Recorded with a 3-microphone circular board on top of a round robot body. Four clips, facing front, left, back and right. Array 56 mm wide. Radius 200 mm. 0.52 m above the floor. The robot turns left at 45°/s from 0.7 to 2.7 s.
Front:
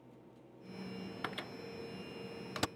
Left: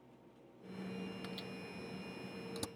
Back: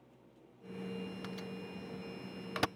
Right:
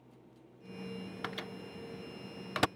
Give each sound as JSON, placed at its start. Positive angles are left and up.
{"t": 1.2, "sound": "a microwave", "azimuth_deg": -45}